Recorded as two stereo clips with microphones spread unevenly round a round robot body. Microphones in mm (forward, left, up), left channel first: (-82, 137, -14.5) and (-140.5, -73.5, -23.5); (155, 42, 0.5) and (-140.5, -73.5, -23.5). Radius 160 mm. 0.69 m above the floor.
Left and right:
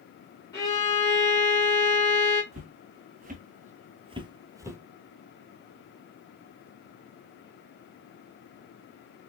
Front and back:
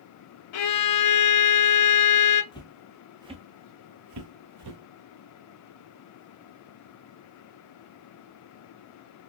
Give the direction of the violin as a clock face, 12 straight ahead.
12 o'clock.